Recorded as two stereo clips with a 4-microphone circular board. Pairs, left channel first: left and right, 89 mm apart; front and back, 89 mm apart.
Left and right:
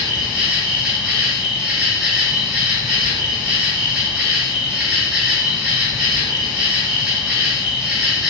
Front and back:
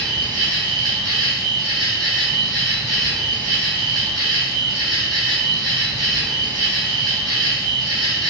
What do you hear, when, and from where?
0.0 s an insect: 165° right, 2.0 m